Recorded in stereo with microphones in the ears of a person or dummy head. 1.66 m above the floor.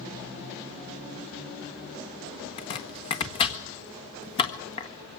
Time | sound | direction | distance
2.6 | chopping | 25° left (ahead or behind) | 1.7 m